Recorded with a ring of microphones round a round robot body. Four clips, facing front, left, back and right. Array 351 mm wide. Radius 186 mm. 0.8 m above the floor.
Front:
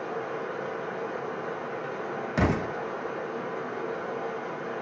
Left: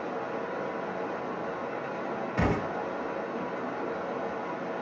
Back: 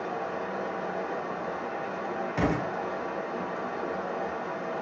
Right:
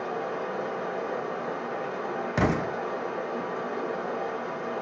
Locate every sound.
0.0 s running water: 130° right, 1.3 m
2.4 s an explosion: 70° right, 0.8 m